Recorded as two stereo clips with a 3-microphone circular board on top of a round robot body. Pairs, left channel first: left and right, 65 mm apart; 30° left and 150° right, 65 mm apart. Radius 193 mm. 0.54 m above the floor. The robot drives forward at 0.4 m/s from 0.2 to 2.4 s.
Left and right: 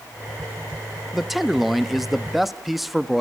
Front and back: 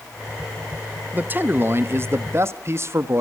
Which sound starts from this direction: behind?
A man speaking, at 1.1 s.